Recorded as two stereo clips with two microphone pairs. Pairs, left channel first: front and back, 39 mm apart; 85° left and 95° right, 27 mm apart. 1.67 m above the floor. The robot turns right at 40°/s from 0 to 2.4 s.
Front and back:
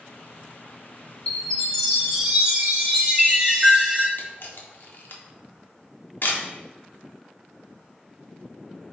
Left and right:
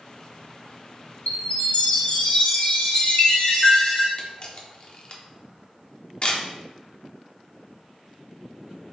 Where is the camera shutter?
35° left, 0.6 m.